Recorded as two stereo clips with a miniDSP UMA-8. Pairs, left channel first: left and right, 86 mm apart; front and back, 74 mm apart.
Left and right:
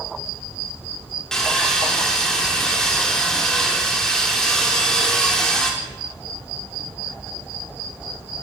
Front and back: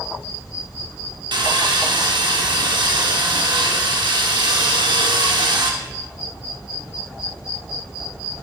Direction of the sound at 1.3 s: 170° left.